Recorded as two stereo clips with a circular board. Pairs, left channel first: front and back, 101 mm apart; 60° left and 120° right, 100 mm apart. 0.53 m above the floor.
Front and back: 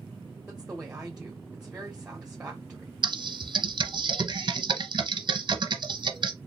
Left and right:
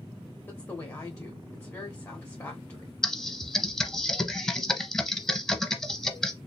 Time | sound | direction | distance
0.5 | a woman speaking | 105° left | 1.3 m
3.0 | typing on a keyboard | 145° left | 0.8 m